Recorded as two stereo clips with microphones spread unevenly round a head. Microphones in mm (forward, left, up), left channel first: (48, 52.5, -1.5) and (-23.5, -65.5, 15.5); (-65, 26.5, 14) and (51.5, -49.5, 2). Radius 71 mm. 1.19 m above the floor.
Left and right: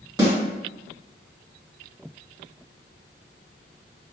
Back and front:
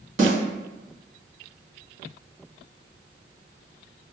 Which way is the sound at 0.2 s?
60° right.